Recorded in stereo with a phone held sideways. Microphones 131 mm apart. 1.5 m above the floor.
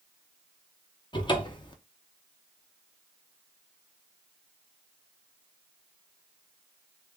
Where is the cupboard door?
35° left (ahead or behind), 0.7 m.